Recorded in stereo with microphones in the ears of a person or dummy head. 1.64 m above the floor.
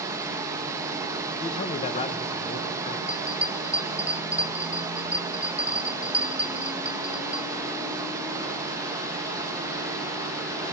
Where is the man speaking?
30° left (ahead or behind), 1.1 m.